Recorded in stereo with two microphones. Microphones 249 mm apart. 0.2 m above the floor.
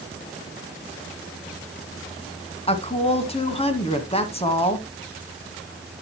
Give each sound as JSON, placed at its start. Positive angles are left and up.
{"t": 2.7, "sound": "a woman speaking", "side_deg": 25, "distance_m": 1.8}